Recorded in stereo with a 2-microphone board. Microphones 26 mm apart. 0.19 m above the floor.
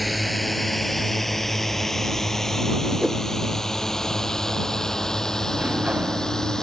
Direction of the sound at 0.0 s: 5° right (ahead or behind).